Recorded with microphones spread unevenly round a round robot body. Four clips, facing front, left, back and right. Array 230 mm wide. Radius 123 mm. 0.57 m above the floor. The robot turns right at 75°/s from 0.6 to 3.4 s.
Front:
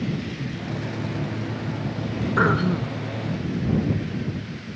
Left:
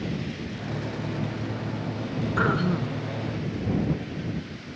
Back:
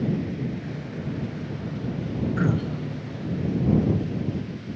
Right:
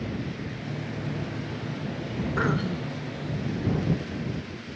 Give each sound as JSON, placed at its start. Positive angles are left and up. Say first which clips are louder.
{"t": 2.4, "sound": "throat clearing", "louder": "left 3 dB, front 9 dB", "azimuth_deg": 5}